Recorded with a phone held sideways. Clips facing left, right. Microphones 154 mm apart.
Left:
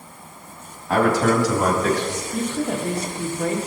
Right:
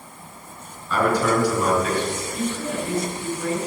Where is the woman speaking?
70° left (ahead or behind), 2 m.